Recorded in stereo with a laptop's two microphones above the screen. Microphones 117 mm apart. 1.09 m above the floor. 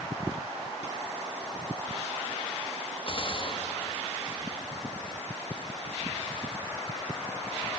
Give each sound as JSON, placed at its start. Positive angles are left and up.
{"t": 3.1, "sound": "a gunshot", "side_deg": 45, "distance_m": 1.9}